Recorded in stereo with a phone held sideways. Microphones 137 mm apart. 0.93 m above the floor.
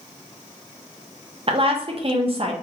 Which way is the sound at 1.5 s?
40° right (ahead or behind).